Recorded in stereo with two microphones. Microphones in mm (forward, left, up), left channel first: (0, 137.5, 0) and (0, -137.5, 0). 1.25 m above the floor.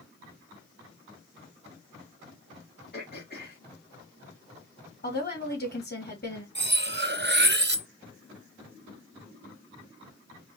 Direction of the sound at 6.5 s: 40° right (ahead or behind).